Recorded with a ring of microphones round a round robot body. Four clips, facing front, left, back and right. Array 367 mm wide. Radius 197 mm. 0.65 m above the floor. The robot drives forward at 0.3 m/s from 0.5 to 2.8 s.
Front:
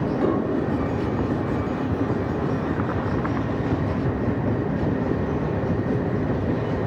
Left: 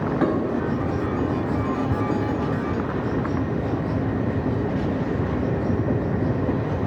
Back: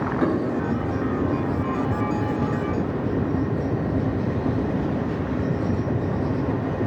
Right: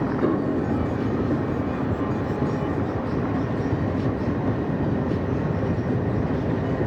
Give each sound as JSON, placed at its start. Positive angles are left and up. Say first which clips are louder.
{"t": 0.2, "sound": "dishes clattering", "louder": "left 1 dB, even", "azimuth_deg": 105, "distance_m": 3.0}